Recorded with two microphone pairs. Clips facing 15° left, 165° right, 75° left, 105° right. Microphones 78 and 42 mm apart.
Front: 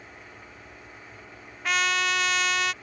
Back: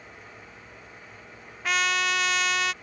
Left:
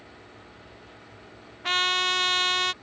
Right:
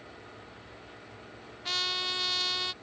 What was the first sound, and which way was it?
A trumpet, 105° left.